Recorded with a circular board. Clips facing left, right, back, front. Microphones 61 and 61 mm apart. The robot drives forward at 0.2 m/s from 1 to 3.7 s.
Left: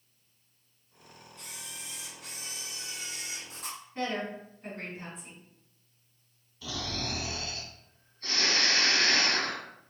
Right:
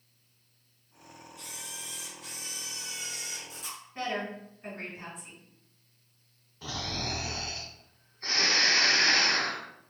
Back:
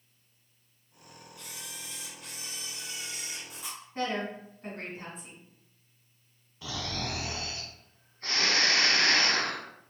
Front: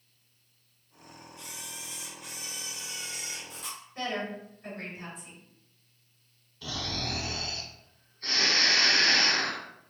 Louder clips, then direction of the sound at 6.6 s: Even, even; 125° right.